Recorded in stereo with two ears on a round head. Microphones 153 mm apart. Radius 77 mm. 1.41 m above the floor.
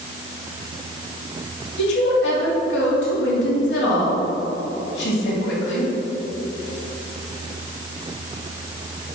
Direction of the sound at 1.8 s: 70° left (ahead or behind).